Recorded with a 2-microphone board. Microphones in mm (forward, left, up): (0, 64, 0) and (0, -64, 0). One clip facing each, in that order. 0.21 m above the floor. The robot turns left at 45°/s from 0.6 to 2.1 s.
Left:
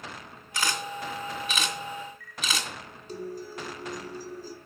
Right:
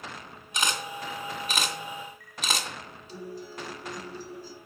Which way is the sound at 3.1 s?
50° left (ahead or behind).